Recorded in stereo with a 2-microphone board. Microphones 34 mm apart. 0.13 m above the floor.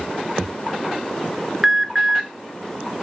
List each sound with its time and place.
1.6 s an alarm: 10° right (ahead or behind), 1.3 m